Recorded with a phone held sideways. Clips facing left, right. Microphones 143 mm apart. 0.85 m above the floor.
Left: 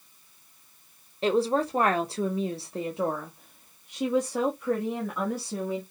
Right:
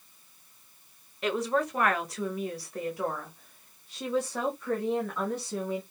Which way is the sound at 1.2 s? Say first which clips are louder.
Left 4 dB; 30° left (ahead or behind).